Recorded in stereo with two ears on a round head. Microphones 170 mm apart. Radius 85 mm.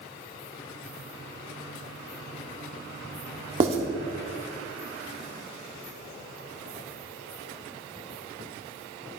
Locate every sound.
3.6 s writing: 35° right (ahead or behind), 1.6 m